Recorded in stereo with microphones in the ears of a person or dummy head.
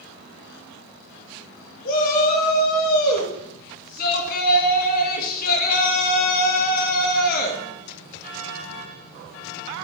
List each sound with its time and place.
1.9 s a shout: 55° left (ahead or behind), 2.5 m